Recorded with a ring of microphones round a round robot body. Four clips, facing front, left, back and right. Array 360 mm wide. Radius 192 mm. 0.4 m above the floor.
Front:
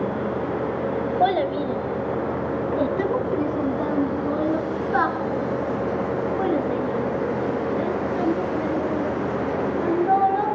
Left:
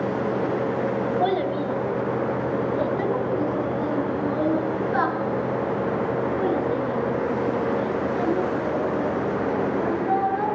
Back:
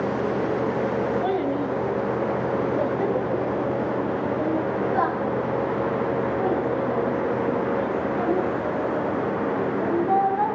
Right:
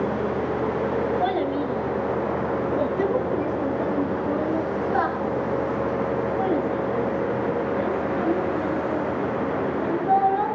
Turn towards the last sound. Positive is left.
turn(degrees=10)